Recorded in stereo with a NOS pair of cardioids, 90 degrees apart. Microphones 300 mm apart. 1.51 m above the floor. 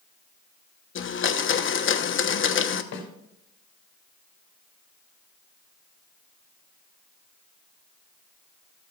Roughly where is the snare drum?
Ahead left.